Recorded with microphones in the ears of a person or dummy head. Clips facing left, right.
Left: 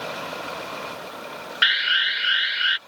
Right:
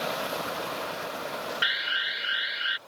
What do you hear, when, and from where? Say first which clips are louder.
1.6 s an alarm: left 5 dB; 70° left (ahead or behind)